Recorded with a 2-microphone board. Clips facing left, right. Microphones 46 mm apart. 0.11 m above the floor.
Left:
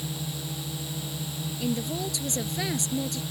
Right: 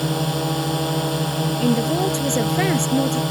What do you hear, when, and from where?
0.0 s a drone: 65° right (ahead or behind)
1.6 s a woman speaking: 40° right (ahead or behind)